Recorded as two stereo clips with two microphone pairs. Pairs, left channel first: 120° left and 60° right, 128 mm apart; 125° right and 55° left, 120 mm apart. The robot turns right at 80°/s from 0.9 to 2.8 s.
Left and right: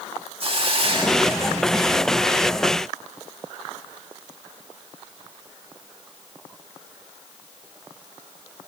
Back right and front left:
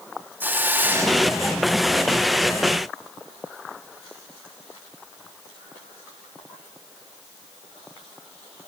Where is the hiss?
20° right, 2 m; by 1.8 s 55° left, 2 m.